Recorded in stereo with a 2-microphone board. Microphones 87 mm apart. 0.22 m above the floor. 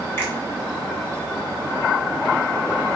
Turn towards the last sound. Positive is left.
turn(degrees=25)  # may be behind; listen again after turning